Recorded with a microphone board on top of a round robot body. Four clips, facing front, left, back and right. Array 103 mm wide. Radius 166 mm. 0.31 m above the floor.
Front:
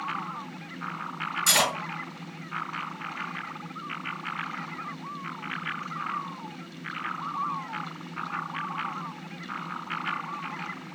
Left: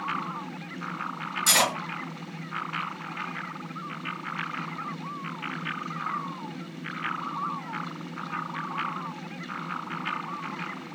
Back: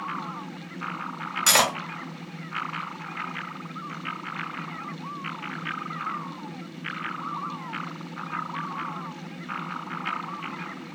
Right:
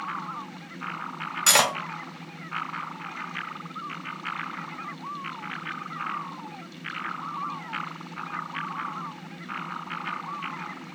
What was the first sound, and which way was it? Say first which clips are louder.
Cutlery clinking: right 3 dB, back 4 dB; 140° right.